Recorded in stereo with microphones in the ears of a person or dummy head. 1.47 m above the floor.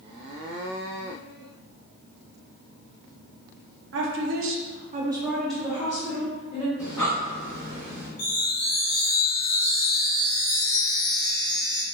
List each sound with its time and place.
3.9 s a woman speaking: 65° right (ahead or behind), 0.9 m; by 6.7 s 25° left (ahead or behind), 1.5 m
6.8 s breathing: 15° left (ahead or behind), 1.8 m
8.2 s a chime: 60° left (ahead or behind), 1.2 m